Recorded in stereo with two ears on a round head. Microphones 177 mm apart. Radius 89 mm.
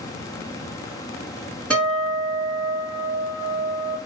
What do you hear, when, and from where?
1.7 s a guitar: 5° left (ahead or behind), 1.8 m